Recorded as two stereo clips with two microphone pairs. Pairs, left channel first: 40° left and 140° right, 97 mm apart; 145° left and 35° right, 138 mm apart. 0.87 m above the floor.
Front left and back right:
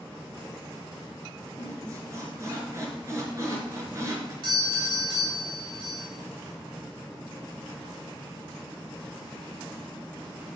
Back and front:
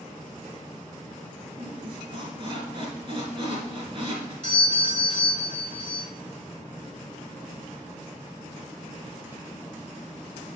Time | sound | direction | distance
1.6 | a squeak | 85° right | 2.5 m
4.4 | a doorbell | 165° right | 4.5 m